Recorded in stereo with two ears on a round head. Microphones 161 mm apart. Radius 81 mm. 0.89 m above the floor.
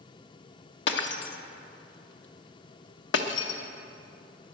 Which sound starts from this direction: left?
Breaking glass, at 0.9 s.